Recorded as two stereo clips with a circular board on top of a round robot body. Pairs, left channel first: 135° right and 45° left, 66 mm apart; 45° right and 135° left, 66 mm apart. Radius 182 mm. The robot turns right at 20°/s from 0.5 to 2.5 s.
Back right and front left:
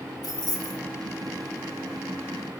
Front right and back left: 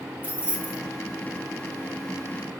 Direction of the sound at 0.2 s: 160° right.